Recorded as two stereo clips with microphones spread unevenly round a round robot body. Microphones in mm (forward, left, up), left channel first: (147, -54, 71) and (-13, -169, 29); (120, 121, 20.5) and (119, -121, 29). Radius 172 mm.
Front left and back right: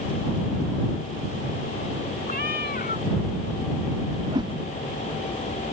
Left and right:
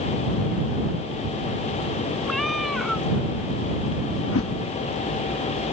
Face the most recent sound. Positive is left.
turn(degrees=140)